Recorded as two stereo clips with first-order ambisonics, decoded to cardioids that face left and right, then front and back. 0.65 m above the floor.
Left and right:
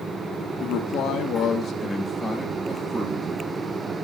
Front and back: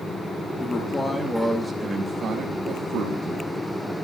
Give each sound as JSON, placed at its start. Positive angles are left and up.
{"t": 0.6, "sound": "a man speaking", "azimuth_deg": 70, "distance_m": 1.3}